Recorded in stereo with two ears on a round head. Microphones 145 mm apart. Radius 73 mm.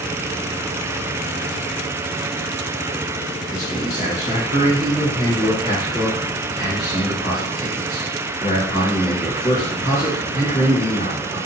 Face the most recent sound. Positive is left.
turn(degrees=40)  # may be behind; listen again after turning